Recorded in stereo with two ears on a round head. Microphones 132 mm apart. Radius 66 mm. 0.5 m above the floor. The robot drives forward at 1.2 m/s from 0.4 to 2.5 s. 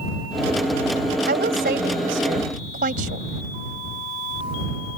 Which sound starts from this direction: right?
A woman speaking, at 1.3 s.